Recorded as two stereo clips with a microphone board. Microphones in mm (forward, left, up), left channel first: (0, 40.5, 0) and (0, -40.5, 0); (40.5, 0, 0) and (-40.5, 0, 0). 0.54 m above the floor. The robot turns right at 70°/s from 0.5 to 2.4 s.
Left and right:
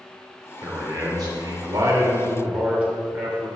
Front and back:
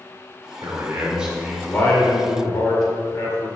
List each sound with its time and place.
0.6 s a man speaking: 145° right, 2 m; by 3.5 s 20° right, 2 m